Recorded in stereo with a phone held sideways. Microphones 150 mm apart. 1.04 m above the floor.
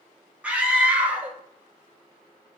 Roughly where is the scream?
Centre.